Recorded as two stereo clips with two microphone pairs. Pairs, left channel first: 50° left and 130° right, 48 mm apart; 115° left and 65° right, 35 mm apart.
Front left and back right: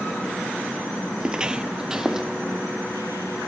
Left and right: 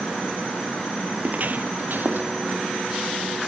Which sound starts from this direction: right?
Footsteps, at 1.2 s.